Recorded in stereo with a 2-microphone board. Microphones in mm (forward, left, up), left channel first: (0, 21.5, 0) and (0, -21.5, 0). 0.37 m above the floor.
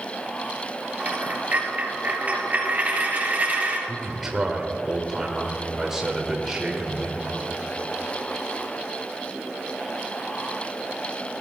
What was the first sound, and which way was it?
A dropped coin, 40° right (ahead or behind).